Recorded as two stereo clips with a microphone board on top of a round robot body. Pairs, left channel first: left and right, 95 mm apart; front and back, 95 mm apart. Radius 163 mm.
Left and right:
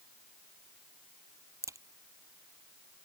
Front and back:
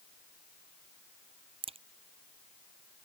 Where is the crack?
150° right.